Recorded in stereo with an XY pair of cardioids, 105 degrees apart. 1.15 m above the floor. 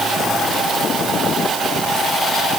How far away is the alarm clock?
No alarm clock in this recording.